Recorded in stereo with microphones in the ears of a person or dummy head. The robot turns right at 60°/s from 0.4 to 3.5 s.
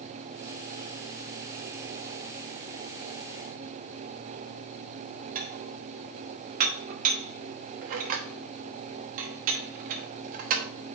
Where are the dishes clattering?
45° right (ahead or behind), 0.9 m.